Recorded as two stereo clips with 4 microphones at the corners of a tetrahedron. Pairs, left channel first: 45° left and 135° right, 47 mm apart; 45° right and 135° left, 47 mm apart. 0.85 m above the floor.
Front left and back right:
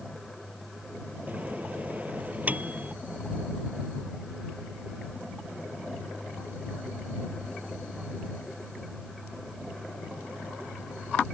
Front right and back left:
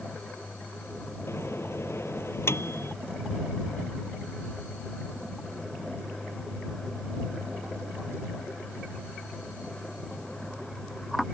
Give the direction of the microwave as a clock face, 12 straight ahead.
3 o'clock.